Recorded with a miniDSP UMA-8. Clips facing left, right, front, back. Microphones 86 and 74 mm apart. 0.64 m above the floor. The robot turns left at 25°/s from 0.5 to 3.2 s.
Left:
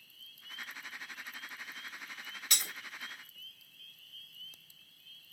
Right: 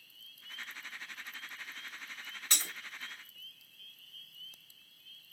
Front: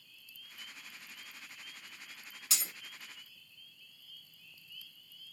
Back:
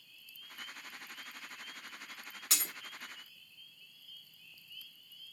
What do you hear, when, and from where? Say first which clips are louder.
2.5 s breaking glass: right 1 dB, back 2 dB; 145° right, 1.3 m; by 2.7 s 150° right, 1.3 m